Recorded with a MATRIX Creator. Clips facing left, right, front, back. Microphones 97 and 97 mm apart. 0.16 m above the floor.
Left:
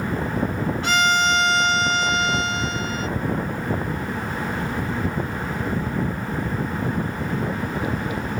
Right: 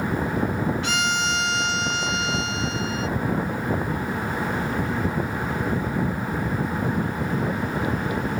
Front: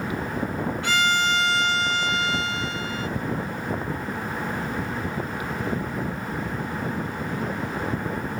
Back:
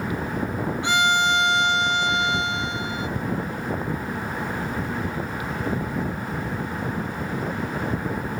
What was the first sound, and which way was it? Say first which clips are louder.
A violin: left 5 dB, back 3 dB; 115° left.